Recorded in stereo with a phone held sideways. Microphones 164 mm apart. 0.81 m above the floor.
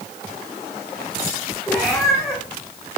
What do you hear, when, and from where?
1.7 s a cat meowing: centre (ahead or behind), 9.5 m